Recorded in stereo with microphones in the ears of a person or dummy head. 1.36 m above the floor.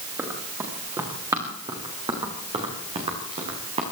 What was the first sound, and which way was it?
Running footsteps, 15° right (ahead or behind).